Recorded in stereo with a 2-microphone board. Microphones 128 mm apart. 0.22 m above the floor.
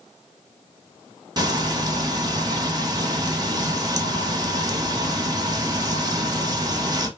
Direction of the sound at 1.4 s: 30° right (ahead or behind).